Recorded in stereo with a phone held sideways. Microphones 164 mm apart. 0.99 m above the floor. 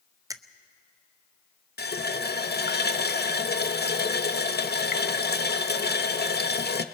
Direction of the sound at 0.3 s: 20° right (ahead or behind).